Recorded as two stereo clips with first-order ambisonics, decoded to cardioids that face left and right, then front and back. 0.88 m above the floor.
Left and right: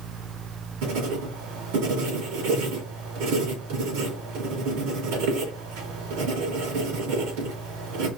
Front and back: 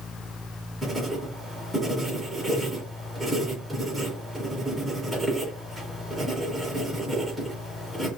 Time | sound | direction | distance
0.8 | writing | 85° right | 3 m